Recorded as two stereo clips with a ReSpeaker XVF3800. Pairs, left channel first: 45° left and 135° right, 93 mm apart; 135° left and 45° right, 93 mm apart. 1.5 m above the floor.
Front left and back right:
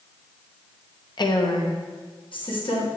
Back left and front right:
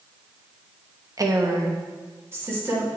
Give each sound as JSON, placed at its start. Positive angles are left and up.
{"t": 1.2, "sound": "a woman speaking", "azimuth_deg": 5, "distance_m": 0.7}